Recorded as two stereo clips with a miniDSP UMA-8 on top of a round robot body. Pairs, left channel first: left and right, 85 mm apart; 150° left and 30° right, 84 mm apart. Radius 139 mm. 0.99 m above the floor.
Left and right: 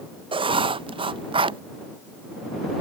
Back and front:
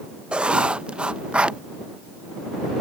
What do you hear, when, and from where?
0.3 s writing: 110° right